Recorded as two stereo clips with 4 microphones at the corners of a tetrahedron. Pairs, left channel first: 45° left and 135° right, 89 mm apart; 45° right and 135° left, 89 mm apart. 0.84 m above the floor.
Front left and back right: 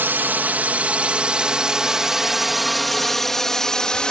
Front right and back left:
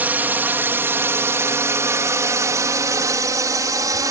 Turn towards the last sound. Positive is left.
turn(degrees=120)